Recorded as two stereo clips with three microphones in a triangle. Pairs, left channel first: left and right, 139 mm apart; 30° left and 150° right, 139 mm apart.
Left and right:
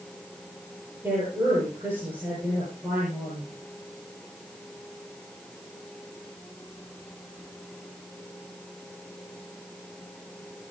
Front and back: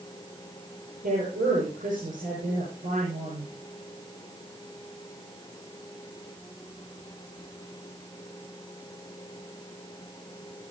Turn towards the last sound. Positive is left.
turn(degrees=-165)